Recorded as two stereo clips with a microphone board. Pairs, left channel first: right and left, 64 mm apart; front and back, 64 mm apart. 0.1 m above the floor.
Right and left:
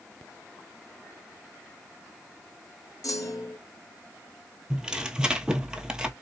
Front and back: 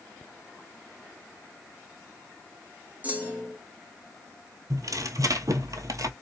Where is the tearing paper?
165° left, 0.8 m.